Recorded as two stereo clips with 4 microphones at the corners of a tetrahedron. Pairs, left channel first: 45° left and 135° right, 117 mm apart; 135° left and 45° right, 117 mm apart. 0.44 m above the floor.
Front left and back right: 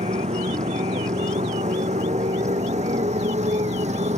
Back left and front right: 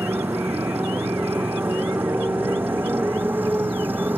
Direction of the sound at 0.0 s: 120° right.